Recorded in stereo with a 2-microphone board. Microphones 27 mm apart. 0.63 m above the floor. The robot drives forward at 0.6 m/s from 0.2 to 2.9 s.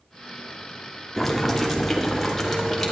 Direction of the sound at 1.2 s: 5° left (ahead or behind).